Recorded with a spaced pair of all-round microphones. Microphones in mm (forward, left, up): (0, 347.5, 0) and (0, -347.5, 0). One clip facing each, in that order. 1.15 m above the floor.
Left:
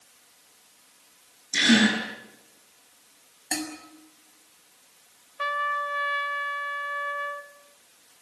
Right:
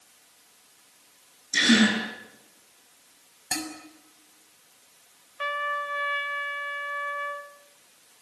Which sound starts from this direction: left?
A trumpet, at 5.4 s.